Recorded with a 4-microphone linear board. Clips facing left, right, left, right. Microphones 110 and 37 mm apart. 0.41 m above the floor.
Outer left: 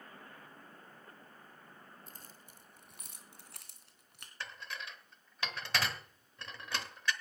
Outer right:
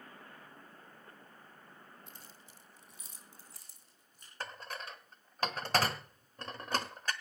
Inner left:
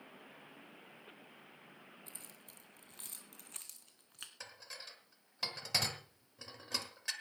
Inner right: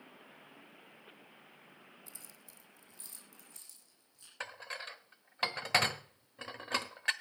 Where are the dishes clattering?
40° right (ahead or behind), 1.1 m.